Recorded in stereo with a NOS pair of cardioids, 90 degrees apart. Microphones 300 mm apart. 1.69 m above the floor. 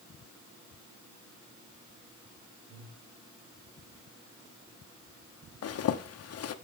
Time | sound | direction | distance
2.7 | breathing | 45° right | 6.5 m
5.6 | a zipper | 50° left | 1.2 m